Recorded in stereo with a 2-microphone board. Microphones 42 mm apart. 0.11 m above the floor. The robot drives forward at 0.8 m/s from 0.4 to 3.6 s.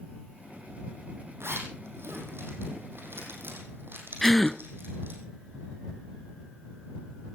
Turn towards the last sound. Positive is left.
turn(degrees=5)  # may be behind; listen again after turning